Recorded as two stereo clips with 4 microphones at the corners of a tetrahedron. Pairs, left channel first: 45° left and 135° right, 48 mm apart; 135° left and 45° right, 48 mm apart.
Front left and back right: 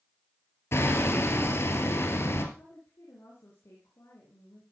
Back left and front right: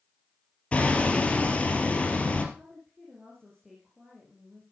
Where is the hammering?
70° left, 1.6 m.